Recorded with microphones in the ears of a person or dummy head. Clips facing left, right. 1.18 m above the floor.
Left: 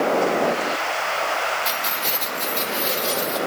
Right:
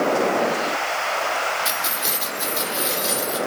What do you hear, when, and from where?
1.6 s keys jangling: 15° right (ahead or behind), 2.5 m